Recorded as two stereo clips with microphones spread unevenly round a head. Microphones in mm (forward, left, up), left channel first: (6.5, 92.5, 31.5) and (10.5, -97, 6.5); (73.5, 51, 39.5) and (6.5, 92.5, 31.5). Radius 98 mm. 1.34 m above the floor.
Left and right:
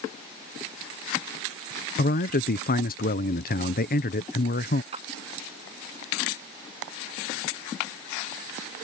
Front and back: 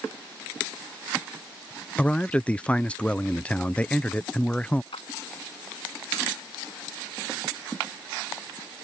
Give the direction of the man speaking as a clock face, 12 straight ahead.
10 o'clock.